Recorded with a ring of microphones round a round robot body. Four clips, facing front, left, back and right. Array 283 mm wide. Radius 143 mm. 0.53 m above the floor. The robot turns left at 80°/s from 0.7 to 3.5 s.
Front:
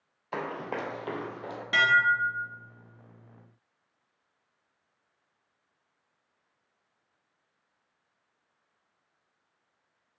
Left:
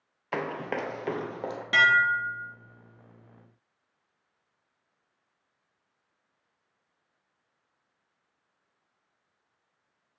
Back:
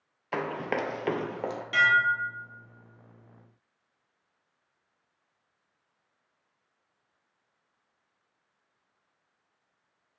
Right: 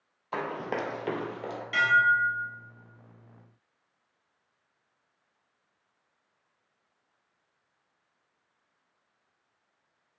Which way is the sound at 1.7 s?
65° left.